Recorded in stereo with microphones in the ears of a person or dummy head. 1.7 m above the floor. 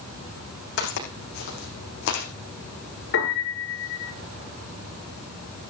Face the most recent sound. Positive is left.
turn(degrees=70)  # may be behind; listen again after turning